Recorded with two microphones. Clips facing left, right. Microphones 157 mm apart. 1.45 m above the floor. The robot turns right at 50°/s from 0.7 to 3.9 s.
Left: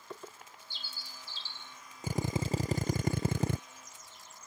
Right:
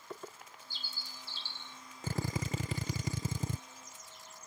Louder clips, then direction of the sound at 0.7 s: Even; 135° right.